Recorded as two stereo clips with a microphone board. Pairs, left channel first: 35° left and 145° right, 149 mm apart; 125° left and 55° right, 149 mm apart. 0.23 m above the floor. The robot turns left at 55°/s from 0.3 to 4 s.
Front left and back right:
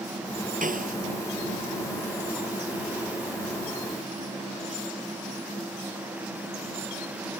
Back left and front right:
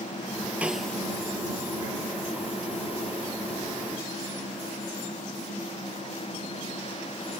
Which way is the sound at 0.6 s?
135° right.